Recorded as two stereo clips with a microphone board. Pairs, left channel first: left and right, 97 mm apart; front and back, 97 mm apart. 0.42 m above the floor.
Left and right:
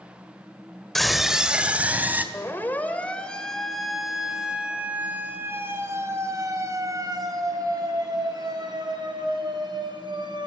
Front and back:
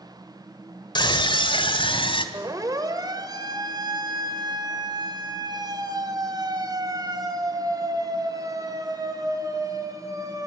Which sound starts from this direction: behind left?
A siren, at 2.3 s.